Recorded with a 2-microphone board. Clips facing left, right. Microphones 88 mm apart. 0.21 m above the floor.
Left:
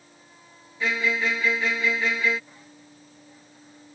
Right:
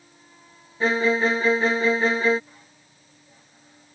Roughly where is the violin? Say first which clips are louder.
Right 5 dB; right.